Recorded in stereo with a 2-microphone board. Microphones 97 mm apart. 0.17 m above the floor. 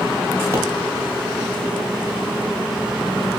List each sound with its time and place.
0.5 s a pop: 30° right (ahead or behind), 1.0 m